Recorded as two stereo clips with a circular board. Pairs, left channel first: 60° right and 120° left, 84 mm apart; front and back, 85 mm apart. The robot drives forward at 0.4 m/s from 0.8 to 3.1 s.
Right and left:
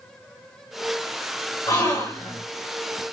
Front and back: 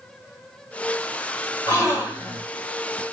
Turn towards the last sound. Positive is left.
turn(degrees=-65)